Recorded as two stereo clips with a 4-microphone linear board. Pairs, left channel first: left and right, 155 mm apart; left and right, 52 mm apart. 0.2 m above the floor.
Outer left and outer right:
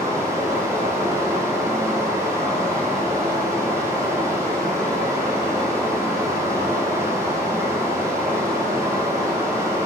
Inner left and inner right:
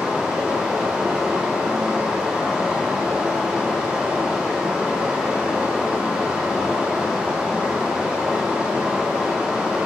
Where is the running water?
20° right (ahead or behind), 3 m.